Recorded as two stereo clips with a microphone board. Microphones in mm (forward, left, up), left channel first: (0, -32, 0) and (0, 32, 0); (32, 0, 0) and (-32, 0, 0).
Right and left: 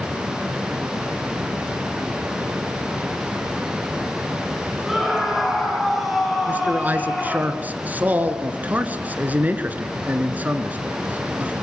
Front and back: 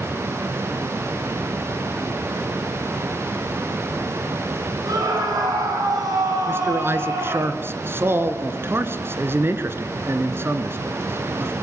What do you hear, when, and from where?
4.9 s a scream: 175° left, 7.5 m; by 7.5 s 175° right, 9.5 m
6.5 s a man speaking: 145° left, 1.8 m